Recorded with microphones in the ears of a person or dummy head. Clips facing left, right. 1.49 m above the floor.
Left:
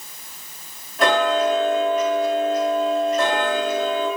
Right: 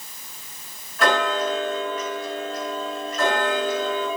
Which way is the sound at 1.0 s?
25° left (ahead or behind).